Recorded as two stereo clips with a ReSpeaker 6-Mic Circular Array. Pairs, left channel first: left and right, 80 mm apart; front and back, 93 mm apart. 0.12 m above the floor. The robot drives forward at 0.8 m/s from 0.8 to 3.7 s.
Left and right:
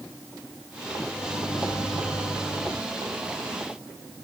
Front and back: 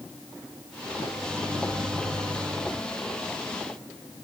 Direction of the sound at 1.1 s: 120° left.